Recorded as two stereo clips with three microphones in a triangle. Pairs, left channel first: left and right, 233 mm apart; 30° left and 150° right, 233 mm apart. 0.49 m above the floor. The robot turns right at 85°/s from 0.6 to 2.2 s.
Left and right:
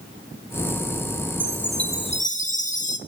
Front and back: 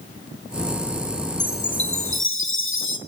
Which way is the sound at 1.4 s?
25° right.